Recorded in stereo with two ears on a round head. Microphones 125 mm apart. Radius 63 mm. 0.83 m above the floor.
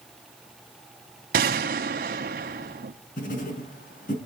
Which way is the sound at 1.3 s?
70° right (ahead or behind).